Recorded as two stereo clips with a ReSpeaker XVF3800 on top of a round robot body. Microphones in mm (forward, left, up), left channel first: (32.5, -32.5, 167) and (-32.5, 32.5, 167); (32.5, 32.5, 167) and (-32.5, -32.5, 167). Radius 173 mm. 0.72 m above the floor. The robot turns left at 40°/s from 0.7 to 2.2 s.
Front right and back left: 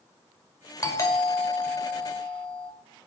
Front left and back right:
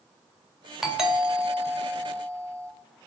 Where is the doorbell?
50° right, 1.3 m; by 2.7 s 105° right, 1.3 m.